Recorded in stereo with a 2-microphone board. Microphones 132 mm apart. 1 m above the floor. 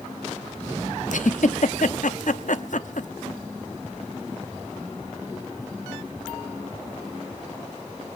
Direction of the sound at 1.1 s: 70° left (ahead or behind).